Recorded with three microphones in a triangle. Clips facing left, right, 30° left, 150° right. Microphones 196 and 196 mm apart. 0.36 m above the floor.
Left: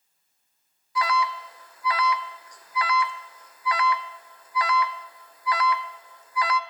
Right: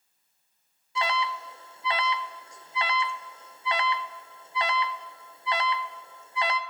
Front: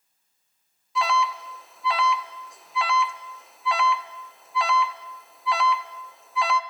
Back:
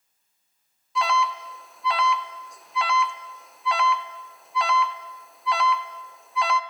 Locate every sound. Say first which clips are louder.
0.9 s an alarm: left 3 dB, even; 60° right, 0.7 m